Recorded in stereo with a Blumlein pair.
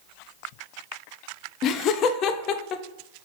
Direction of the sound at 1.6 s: 35° left.